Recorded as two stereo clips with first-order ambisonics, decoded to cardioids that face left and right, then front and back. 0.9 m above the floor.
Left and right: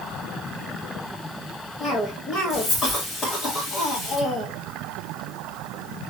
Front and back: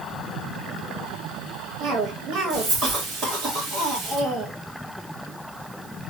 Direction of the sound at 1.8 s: 150° left.